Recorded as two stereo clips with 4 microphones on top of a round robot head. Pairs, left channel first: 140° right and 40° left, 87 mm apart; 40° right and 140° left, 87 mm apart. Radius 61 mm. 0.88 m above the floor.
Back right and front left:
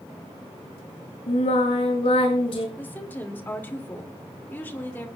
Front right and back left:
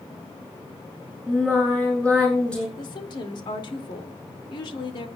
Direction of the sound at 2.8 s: 70° right.